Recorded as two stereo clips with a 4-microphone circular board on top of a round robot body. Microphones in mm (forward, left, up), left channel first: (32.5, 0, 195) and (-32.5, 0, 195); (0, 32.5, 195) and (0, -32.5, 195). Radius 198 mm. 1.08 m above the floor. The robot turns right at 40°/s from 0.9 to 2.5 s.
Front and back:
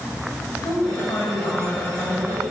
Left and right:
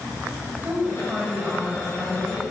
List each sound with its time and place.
0.6 s a woman speaking: 25° right, 5.5 m; by 2.4 s 35° left, 5.5 m